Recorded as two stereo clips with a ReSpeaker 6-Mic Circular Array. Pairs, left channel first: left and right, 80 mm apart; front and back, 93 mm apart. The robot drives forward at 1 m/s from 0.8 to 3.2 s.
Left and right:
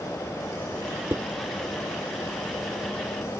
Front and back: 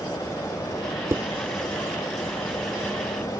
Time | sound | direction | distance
1.1 | dishes clattering | 140° right | ?